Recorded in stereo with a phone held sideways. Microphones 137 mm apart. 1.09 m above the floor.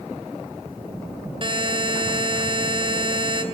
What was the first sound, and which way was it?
A buzzer, 40° right (ahead or behind).